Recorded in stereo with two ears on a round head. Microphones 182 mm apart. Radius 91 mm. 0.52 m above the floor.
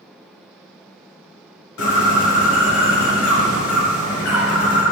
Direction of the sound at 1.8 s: 75° left (ahead or behind).